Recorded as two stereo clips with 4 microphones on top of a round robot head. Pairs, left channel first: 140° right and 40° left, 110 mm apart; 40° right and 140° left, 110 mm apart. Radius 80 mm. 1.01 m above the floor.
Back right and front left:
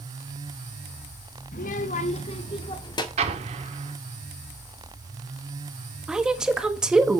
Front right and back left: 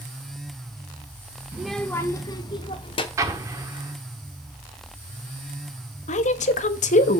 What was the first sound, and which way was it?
A child speaking, 145° right.